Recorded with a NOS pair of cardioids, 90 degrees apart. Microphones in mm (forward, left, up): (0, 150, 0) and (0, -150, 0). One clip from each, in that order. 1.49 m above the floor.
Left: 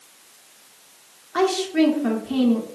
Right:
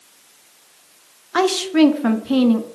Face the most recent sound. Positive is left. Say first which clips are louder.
# right 4 dB
turn(degrees=-40)